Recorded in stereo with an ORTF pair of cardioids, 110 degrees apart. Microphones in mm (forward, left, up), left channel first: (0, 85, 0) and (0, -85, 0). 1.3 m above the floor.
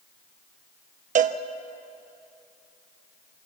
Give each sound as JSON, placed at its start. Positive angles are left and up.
{"t": 1.1, "sound": "a cowbell", "azimuth_deg": -50, "distance_m": 1.0}